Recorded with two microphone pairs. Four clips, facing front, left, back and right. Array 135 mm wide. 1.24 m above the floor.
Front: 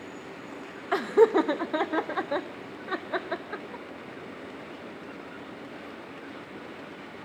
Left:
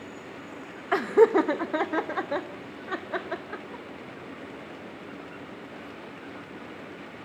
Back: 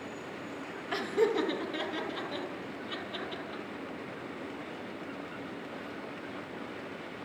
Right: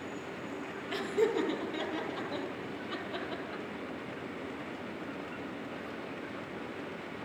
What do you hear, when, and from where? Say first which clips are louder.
0.9 s laughter: left 11 dB, front 8 dB; 60° left, 2.0 m; by 3.8 s 30° left, 3.5 m